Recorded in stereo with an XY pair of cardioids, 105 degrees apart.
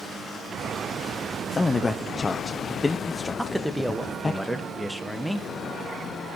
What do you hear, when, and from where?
1.5 s a man speaking: 25° left, 0.8 m
3.4 s a man speaking: straight ahead, 1.6 m